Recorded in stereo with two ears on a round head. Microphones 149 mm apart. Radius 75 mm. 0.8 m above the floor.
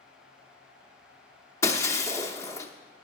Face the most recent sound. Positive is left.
turn(degrees=20)  # may be behind; listen again after turning